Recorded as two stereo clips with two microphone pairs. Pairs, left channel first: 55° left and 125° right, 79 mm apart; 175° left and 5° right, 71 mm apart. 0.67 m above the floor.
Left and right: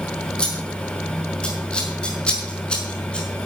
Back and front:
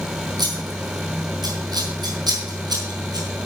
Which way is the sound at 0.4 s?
20° right.